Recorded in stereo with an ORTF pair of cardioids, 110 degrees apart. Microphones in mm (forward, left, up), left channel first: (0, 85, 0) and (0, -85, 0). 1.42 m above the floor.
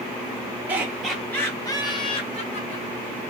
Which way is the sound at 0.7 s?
10° right.